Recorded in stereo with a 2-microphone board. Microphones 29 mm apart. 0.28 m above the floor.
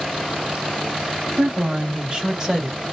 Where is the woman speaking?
50° right (ahead or behind), 1.6 m; by 2.8 s 15° right (ahead or behind), 1.2 m.